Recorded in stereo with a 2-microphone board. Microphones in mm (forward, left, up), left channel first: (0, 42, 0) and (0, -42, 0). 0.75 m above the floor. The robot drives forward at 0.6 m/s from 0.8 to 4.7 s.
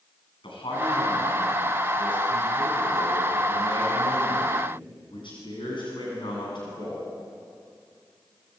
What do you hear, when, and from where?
0.4 s a man speaking: 80° left, 8.5 m; by 7.0 s 70° left (ahead or behind), 9 m